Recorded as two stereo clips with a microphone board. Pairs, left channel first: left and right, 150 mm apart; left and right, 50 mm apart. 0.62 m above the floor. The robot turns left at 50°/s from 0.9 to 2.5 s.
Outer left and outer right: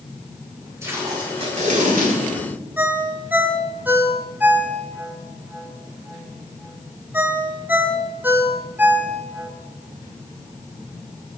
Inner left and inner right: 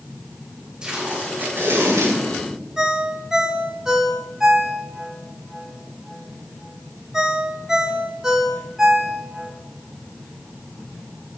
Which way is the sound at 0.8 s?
20° right.